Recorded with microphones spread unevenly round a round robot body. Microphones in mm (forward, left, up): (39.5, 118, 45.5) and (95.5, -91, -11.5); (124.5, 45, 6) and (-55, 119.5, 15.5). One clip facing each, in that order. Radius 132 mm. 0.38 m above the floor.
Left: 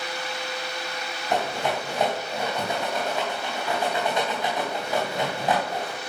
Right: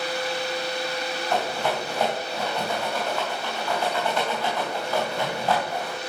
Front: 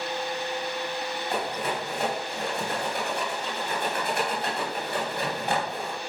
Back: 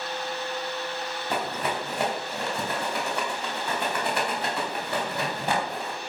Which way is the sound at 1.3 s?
175° right.